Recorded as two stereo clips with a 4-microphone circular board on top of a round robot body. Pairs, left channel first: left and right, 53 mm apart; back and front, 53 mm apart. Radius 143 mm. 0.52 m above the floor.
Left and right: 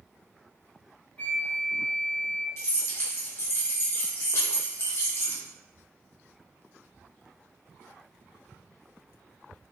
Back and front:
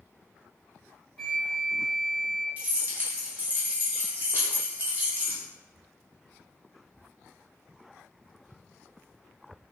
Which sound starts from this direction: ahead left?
Keys jangling, at 2.6 s.